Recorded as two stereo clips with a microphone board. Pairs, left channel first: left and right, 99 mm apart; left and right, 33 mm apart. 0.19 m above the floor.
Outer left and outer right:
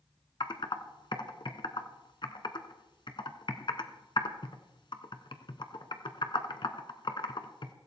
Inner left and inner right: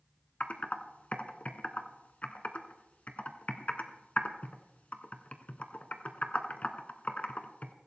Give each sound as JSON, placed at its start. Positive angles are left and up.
{"t": 0.4, "sound": "typing on a keyboard", "side_deg": 55, "distance_m": 1.1}